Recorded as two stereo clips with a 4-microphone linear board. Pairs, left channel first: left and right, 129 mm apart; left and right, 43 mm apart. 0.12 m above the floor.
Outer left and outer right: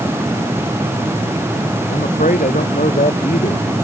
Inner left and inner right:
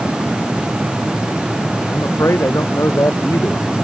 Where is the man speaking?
80° left.